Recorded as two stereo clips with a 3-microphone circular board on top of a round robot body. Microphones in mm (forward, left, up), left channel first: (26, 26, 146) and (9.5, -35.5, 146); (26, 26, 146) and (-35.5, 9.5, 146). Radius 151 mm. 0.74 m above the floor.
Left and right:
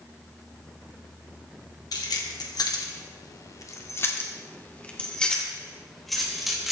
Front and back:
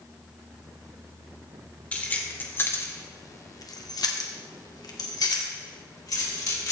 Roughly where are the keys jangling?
Left.